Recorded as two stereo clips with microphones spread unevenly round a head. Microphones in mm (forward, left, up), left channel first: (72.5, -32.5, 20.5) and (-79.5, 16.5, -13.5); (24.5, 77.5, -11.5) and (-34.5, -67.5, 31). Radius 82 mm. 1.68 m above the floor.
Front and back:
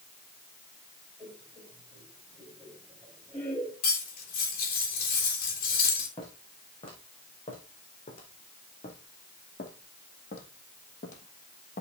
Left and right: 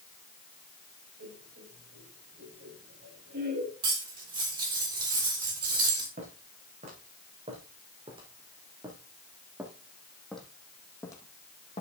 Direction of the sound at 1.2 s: 100° right.